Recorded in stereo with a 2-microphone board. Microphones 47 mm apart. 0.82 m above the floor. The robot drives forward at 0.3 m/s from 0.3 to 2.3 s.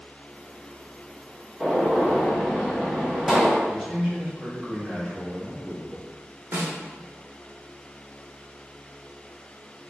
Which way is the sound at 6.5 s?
60° right (ahead or behind).